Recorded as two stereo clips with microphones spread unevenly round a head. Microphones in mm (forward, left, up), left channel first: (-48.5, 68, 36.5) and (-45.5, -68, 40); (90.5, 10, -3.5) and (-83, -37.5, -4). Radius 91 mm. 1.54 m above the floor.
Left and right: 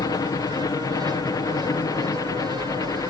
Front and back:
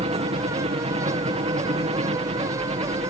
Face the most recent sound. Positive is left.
turn(degrees=145)